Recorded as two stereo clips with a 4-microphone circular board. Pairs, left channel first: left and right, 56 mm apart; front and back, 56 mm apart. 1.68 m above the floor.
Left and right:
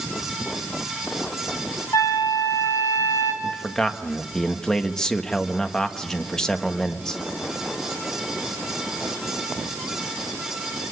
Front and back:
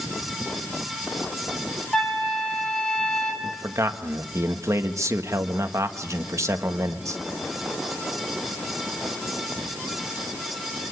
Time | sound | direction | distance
1.9 | a flute | 75° left | 4.5 m
3.4 | a man speaking | 170° left | 1.8 m